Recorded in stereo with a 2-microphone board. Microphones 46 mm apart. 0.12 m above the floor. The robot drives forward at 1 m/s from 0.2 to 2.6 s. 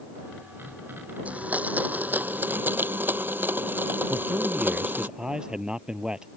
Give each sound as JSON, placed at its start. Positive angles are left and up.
{"t": 1.2, "sound": "a blender", "side_deg": -30}
{"t": 4.1, "sound": "a man speaking", "side_deg": -15}